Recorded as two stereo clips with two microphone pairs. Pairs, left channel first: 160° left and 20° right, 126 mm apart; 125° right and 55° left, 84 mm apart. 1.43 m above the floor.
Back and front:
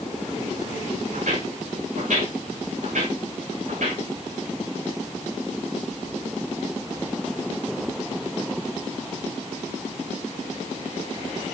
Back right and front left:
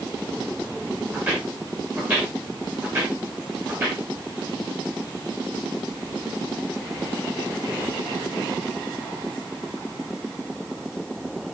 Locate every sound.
1.1 s footsteps: 10° right, 5.5 m